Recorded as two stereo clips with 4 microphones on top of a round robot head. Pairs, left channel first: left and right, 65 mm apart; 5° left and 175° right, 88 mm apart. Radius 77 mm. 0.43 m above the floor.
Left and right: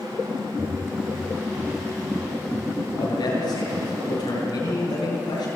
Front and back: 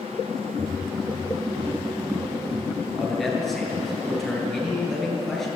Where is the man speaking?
90° left, 8.5 m.